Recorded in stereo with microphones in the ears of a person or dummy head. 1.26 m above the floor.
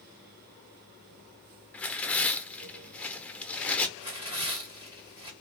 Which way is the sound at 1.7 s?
10° left (ahead or behind).